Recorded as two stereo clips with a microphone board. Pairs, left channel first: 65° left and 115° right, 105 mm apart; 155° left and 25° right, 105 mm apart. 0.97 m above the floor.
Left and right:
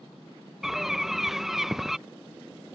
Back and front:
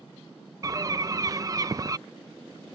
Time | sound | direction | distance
0.6 | a bird | 30° right | ?